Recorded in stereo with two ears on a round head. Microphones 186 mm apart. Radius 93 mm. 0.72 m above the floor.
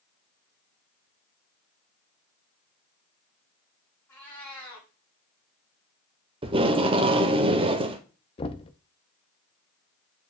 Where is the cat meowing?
10° left (ahead or behind), 4.5 m.